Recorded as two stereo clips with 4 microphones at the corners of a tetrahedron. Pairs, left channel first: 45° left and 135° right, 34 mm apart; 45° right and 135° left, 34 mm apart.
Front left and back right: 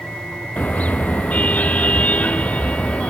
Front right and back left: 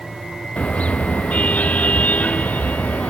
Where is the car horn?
5° left; by 3.1 s 5° right.